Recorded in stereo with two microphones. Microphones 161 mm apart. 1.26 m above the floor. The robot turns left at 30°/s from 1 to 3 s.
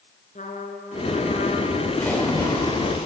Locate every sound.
0.3 s a trumpet: 55° left (ahead or behind), 4 m; by 1.9 s 75° left (ahead or behind), 4 m
2.0 s a splash: 170° left, 6 m; by 3.1 s 140° left, 6 m